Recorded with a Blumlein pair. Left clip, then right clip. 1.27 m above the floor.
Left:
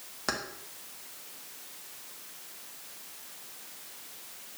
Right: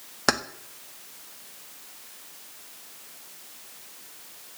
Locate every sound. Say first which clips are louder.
0.3 s keys jangling: right 9 dB; 60° right, 1.3 m